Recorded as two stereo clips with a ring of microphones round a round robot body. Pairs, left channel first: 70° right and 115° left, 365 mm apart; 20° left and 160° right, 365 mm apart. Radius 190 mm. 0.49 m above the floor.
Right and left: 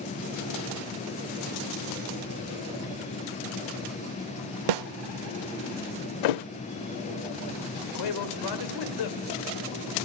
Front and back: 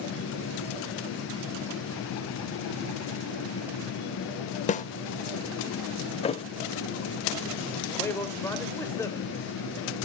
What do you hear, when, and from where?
4.7 s a snare drum: 95° left, 0.8 m
6.2 s a thud: 55° right, 0.7 m
7.9 s a man speaking: 60° right, 2.5 m